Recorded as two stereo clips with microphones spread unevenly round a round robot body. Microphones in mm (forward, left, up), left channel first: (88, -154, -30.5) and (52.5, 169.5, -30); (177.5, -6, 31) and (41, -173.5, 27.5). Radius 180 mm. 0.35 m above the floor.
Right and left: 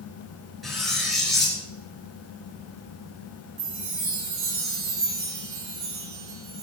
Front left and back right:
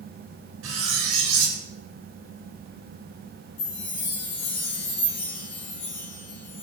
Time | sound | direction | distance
0.6 | cutlery clinking | 175° right | 3 m
3.6 | a chime | 60° left | 5.5 m